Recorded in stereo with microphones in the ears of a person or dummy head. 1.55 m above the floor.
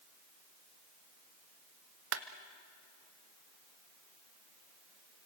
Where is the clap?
70° right (ahead or behind), 1.2 m.